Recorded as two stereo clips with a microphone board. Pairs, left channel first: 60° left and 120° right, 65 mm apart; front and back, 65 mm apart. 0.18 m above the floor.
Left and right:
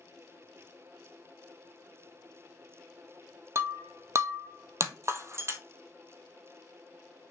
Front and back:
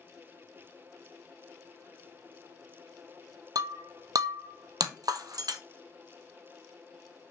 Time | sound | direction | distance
3.5 | breaking glass | 165° right | 0.8 m